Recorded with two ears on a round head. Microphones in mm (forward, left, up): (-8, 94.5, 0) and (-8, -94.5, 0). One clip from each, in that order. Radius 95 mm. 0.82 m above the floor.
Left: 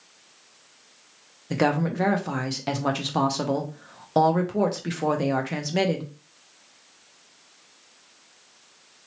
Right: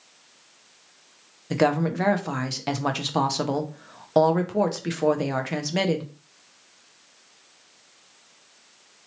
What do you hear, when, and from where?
1.5 s a woman speaking: 10° right (ahead or behind), 0.5 m